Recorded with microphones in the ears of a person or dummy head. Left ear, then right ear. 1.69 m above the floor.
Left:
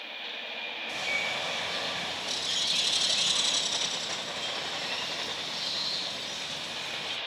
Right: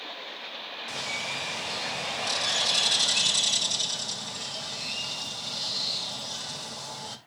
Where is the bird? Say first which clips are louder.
Left 2 dB; 75° right (ahead or behind), 2 m.